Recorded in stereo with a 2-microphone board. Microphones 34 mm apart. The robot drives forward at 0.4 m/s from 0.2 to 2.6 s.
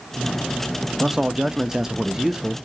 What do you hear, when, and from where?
1.0 s a man speaking: 10° right (ahead or behind), 0.6 m; by 2.6 s 15° right (ahead or behind), 0.6 m